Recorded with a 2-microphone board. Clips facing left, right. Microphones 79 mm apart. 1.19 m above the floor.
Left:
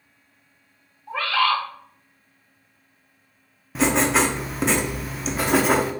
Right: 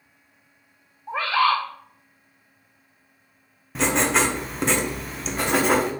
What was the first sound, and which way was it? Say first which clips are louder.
A bird: right 1 dB; 20° right (ahead or behind).